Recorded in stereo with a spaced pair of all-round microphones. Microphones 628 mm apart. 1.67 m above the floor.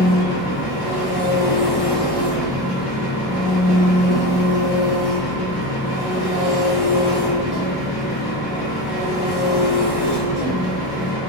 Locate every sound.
0.0 s an engine running: 40° left (ahead or behind), 0.8 m